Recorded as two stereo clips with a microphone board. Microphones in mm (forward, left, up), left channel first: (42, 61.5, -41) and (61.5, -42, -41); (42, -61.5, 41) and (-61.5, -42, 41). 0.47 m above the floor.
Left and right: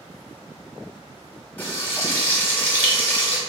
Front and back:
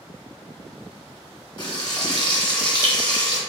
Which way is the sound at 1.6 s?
30° left.